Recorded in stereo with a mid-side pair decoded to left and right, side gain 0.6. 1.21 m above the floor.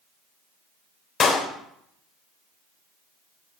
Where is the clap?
45° left, 3.5 m.